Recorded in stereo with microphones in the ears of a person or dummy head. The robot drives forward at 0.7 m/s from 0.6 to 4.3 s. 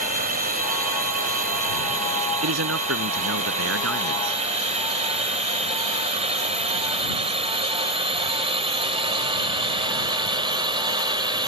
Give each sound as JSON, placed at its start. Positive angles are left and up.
{"t": 0.0, "sound": "a drone", "side_deg": -45}
{"t": 2.4, "sound": "a man speaking", "side_deg": -75}